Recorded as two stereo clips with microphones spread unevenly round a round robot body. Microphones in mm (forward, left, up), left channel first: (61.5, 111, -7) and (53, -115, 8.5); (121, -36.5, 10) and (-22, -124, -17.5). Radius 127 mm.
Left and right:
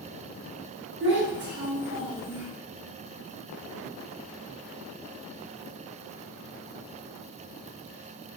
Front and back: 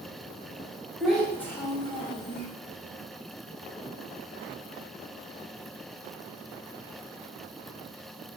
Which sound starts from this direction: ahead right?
A child speaking, at 1.0 s.